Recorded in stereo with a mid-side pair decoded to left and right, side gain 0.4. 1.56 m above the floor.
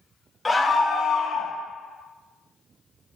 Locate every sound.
0.5 s a scream: 10° left, 0.6 m; by 1.5 s 55° left, 1.1 m